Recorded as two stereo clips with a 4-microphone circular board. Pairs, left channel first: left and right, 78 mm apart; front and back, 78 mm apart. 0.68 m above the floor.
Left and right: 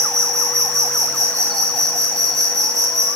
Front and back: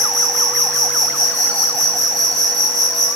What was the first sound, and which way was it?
An insect, 40° right.